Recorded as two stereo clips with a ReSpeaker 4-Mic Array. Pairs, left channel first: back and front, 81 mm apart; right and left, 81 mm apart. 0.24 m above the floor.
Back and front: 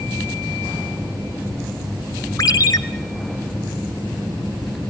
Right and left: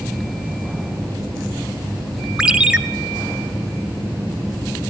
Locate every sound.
2.4 s a ringtone: 165° left, 1.0 m